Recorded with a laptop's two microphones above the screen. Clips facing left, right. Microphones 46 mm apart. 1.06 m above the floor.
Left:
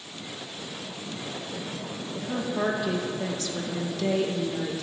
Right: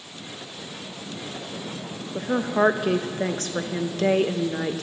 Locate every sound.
2.1 s a woman speaking: 45° right (ahead or behind), 0.7 m